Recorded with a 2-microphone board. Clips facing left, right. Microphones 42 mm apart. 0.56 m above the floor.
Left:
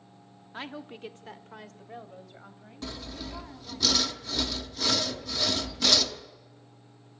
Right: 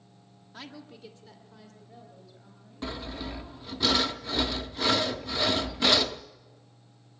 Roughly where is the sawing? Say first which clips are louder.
Right 3 dB; right.